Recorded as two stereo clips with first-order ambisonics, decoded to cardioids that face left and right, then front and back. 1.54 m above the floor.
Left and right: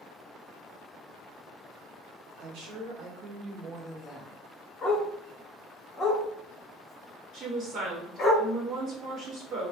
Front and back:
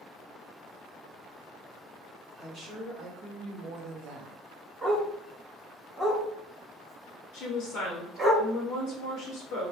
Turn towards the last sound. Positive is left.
turn(degrees=-45)